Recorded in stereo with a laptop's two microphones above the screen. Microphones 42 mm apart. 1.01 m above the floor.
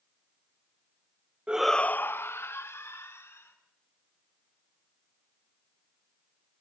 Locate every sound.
1.5 s a shout: 25° right (ahead or behind), 0.6 m; by 3.5 s 85° left, 3 m